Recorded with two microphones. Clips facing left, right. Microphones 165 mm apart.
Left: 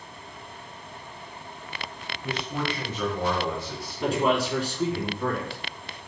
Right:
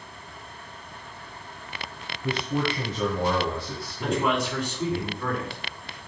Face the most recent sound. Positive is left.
turn(degrees=30)  # may be behind; listen again after turning